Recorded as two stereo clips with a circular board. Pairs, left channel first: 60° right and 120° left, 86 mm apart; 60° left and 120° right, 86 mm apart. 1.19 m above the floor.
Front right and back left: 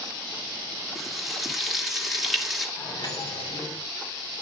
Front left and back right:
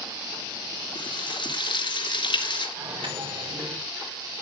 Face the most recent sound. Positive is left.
turn(degrees=-95)